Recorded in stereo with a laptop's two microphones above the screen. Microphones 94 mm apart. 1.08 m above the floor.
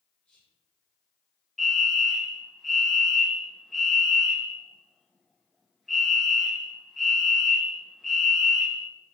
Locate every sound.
0.2 s whispering: 10° left (ahead or behind), 0.6 m
1.6 s a fire alarm: centre (ahead or behind), 1.0 m